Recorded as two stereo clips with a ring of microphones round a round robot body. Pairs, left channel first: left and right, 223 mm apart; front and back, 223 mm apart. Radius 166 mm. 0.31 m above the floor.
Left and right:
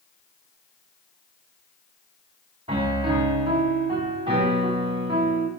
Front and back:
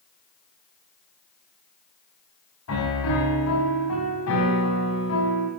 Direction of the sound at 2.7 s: 25° right.